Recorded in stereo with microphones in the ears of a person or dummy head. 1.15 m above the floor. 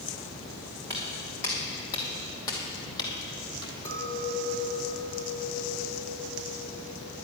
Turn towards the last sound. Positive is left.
turn(degrees=15)  # may be behind; listen again after turning